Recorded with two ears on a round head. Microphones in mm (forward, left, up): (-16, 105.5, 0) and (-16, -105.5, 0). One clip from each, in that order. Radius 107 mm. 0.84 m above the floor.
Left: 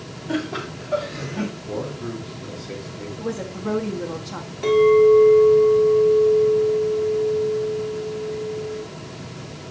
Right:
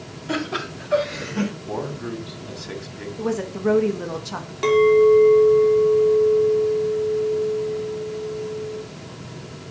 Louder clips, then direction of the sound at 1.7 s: Even; 40° right (ahead or behind).